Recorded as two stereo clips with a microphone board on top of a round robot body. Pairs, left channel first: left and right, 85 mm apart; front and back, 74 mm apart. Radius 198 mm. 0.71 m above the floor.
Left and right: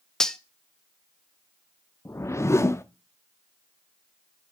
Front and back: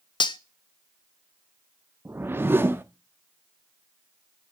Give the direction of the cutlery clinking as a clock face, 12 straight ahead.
12 o'clock.